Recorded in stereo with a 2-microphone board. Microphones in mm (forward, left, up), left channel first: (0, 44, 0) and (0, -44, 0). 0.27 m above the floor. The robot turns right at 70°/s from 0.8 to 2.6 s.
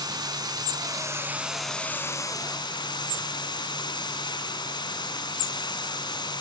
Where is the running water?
60° right, 1.7 m; by 6.4 s 70° left, 1.7 m.